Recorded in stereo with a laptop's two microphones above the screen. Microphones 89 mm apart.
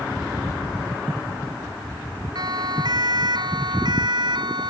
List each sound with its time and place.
2.4 s a siren: 55° right (ahead or behind); by 4.7 s 60° right (ahead or behind)